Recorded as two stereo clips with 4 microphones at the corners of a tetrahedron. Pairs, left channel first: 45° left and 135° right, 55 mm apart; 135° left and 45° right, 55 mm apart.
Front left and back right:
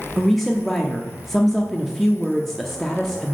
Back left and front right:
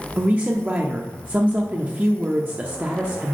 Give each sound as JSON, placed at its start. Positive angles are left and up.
{"t": 0.2, "sound": "a woman speaking", "azimuth_deg": -40, "distance_m": 0.7}